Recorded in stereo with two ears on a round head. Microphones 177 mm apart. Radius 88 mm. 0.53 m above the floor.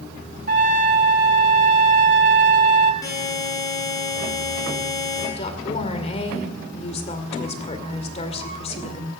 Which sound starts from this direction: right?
A trumpet, at 0.5 s.